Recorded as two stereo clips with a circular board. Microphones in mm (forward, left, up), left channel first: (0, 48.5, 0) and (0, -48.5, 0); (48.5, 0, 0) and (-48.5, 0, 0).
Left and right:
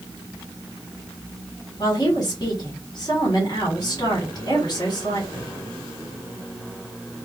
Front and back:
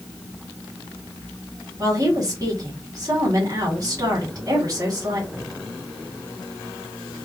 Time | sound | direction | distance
1.8 | a woman speaking | 130° left | 2 m